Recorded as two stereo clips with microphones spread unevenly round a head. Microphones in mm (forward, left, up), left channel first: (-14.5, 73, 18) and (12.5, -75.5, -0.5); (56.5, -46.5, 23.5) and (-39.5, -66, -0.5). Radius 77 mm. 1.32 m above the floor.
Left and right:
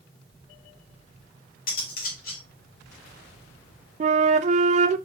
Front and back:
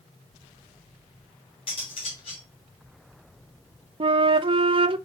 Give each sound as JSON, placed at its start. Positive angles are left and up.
{"t": 1.7, "sound": "cutlery clinking", "azimuth_deg": 65, "distance_m": 2.5}
{"t": 4.0, "sound": "a flute", "azimuth_deg": -130, "distance_m": 0.5}